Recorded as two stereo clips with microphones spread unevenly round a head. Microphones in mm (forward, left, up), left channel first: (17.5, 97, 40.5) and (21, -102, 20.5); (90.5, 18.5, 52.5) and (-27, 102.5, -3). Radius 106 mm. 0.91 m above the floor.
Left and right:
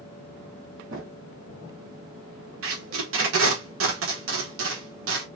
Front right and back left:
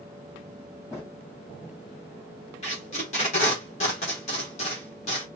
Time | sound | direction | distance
0.9 | a drawer | 125° right | 1.9 m
2.6 | tape being pulled | 100° right | 1.4 m